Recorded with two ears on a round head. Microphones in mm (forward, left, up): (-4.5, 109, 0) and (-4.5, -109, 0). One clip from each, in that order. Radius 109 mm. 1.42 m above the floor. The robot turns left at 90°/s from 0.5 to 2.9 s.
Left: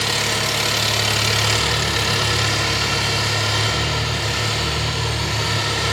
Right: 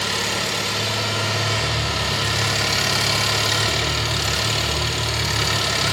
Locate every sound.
0.0 s an engine running: 155° left, 1.1 m; by 5.9 s 60° right, 1.1 m